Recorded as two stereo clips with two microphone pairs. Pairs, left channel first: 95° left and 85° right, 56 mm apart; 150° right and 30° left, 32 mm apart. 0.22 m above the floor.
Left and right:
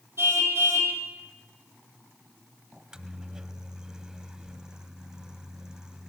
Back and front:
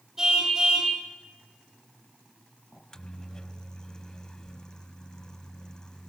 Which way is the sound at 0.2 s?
40° right.